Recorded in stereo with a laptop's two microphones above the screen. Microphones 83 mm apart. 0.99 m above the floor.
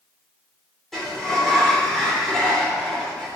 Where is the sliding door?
5° left (ahead or behind), 3 m.